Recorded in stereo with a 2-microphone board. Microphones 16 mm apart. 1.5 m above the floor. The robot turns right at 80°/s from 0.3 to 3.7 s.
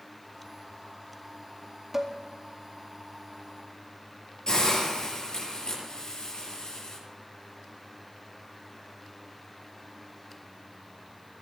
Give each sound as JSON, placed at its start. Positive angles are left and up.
{"t": 1.9, "sound": "dishes clattering", "side_deg": -20, "distance_m": 2.0}
{"t": 4.5, "sound": "a hiss", "side_deg": 45, "distance_m": 7.5}